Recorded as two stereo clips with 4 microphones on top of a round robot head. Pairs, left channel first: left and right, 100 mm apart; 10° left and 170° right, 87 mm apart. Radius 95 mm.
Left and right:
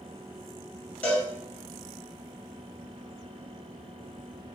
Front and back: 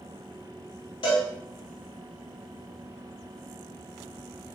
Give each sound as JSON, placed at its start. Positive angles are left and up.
{"t": 1.0, "sound": "a cowbell", "azimuth_deg": 15, "distance_m": 2.0}